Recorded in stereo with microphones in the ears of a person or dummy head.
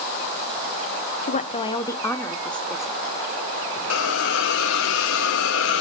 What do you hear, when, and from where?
1.3 s a woman speaking: 40° left (ahead or behind), 0.8 m; by 3.0 s 5° right (ahead or behind), 1.5 m
3.9 s a hiss: 70° left (ahead or behind), 0.8 m